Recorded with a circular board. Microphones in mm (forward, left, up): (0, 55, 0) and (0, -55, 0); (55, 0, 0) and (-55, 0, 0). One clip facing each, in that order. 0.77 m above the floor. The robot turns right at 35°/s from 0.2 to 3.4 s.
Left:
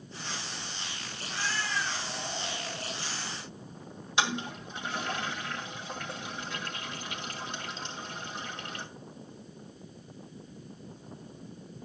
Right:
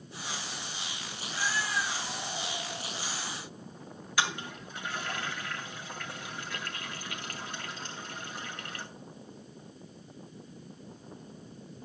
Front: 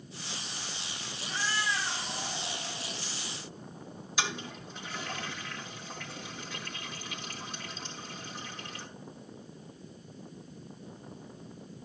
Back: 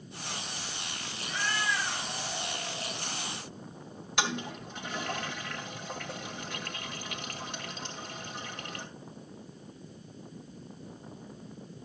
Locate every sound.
1.2 s a cat meowing: 75° left, 5 m; by 3.0 s 140° left, 5 m
4.2 s a toilet flushing: 155° left, 2 m